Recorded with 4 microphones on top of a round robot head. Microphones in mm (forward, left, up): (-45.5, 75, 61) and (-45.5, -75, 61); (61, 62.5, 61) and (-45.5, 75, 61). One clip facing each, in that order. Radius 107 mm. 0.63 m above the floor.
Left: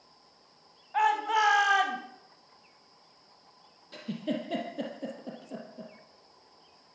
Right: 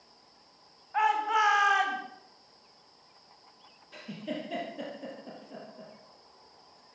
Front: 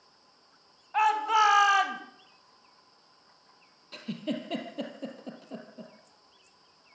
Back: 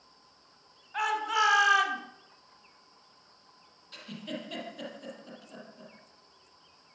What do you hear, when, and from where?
0.9 s a shout: 25° left, 4 m; by 2.0 s 30° left, 3 m
3.9 s a giggle: 30° left, 5 m